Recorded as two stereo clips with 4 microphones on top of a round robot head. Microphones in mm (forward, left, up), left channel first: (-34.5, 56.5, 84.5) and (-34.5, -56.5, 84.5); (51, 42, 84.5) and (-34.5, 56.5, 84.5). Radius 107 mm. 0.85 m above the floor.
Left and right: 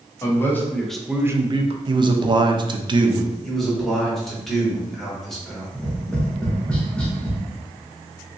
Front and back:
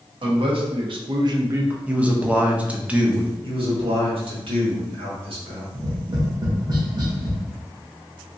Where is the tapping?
170° left, 1.2 m.